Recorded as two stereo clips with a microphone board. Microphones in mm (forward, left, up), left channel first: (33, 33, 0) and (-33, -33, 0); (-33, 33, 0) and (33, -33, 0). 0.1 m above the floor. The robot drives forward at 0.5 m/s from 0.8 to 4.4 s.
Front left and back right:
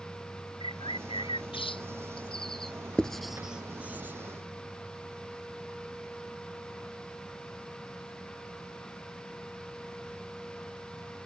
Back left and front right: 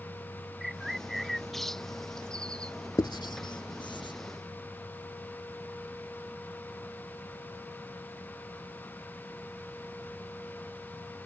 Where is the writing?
120° left; by 4.1 s 155° left.